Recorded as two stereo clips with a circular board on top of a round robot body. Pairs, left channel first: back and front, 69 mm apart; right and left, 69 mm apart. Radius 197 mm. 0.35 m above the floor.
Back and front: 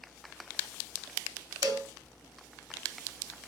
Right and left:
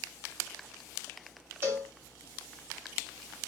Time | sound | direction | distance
1.6 | a cowbell | 30° left | 2.5 m